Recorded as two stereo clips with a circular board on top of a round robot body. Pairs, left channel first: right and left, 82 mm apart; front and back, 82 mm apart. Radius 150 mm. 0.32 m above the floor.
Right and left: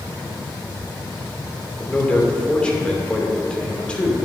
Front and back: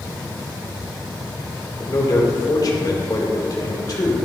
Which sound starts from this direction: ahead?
A man speaking, at 1.8 s.